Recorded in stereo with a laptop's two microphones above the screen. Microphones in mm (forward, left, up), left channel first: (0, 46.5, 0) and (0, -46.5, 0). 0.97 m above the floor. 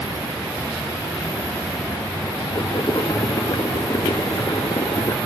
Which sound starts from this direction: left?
Boiling, at 2.5 s.